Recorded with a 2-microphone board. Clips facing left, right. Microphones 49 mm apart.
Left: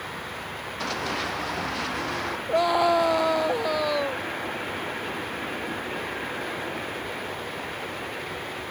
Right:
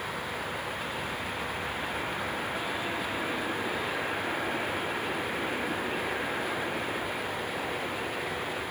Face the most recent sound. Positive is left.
turn(degrees=75)  # may be behind; listen again after turning